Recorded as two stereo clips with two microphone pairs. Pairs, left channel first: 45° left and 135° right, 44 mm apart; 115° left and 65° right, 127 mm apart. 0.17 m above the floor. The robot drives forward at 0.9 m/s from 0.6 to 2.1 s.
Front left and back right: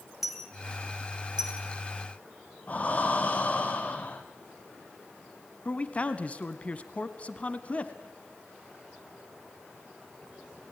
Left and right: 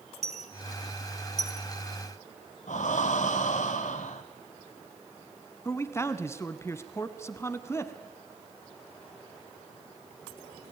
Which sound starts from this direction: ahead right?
A dropped coin, at 0.2 s.